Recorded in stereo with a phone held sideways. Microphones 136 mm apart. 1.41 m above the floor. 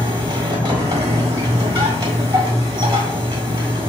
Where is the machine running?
30° right (ahead or behind), 1.4 m.